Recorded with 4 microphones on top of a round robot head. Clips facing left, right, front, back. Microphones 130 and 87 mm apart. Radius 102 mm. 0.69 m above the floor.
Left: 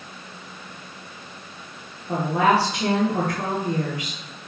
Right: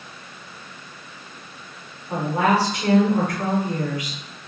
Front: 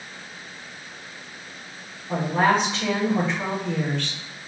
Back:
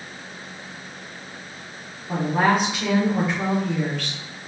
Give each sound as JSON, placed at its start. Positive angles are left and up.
{"t": 2.1, "sound": "a woman speaking", "azimuth_deg": 105, "distance_m": 1.9}